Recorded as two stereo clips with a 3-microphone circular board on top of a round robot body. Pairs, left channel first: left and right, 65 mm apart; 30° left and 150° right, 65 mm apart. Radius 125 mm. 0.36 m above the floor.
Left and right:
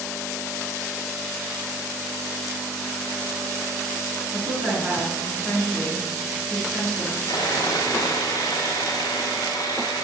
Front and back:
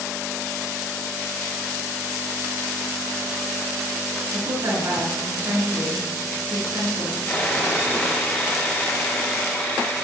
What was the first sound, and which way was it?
A woman speaking, 170° left.